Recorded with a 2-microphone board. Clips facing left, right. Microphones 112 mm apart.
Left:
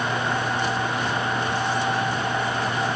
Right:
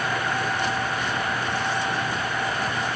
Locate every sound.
Only background noise.